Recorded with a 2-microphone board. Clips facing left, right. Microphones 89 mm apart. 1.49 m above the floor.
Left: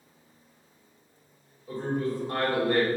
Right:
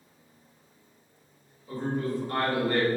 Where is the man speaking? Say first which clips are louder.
Left 1 dB; 25° left (ahead or behind), 1.7 m.